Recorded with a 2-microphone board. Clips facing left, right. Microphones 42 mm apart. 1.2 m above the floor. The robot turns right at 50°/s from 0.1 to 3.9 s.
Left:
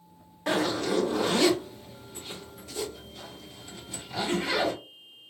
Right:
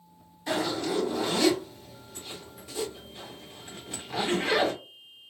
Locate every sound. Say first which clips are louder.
0.5 s a zipper: left 2 dB; 80° left, 2 m; by 4.7 s 75° right (ahead or behind), 2 m